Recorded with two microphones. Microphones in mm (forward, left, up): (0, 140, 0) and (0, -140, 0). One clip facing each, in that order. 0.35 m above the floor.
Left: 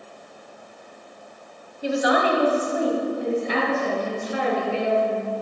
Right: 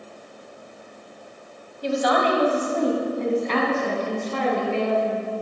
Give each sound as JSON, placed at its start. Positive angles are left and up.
{"t": 1.8, "sound": "a woman speaking", "side_deg": 10, "distance_m": 1.8}